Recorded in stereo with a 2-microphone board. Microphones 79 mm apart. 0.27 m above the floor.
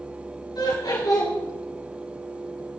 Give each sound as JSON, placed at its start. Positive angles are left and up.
{"t": 0.6, "sound": "laughter", "side_deg": 70, "distance_m": 4.0}